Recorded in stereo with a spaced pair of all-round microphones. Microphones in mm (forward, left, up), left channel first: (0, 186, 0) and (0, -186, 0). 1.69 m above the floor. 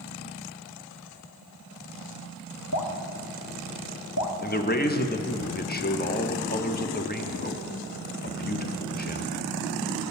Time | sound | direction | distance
2.7 | dripping | 55° left (ahead or behind) | 0.7 m
4.4 | a man speaking | 25° left (ahead or behind) | 0.6 m